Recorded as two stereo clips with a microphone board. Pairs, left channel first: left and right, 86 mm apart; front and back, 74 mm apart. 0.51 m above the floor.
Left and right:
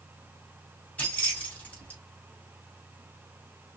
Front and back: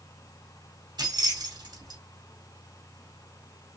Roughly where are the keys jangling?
Behind.